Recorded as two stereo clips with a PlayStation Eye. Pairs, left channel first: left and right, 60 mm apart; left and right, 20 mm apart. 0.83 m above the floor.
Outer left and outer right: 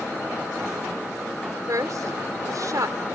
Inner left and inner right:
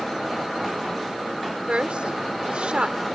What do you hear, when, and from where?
1.7 s a woman speaking: 75° right (ahead or behind)